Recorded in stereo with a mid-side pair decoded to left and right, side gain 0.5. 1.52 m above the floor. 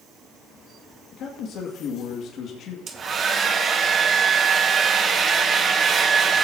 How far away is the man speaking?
About 1.9 m.